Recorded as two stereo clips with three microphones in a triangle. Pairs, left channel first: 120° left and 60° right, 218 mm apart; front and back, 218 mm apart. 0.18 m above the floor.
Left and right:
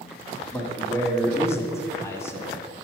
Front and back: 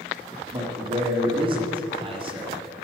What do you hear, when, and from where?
0.5 s a man speaking: straight behind, 1.2 m